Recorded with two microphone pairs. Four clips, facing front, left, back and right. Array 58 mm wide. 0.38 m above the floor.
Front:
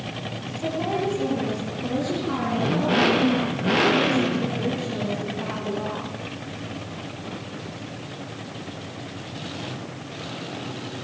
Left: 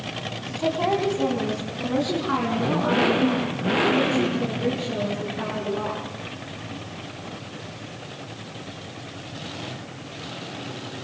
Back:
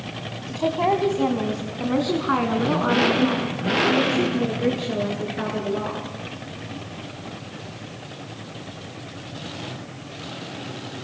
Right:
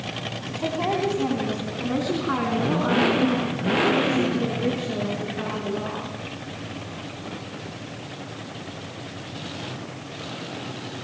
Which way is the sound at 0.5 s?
Straight behind.